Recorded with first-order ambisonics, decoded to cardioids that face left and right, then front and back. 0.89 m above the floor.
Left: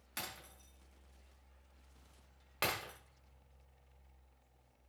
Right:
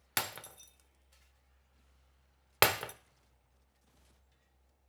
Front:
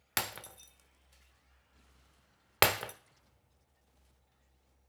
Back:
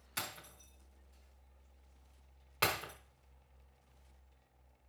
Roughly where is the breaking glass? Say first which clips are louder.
Right 9 dB, front 6 dB; ahead right.